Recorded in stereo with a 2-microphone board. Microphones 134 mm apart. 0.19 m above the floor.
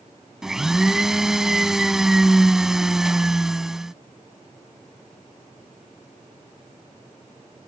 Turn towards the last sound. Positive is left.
turn(degrees=-5)  # may be behind; listen again after turning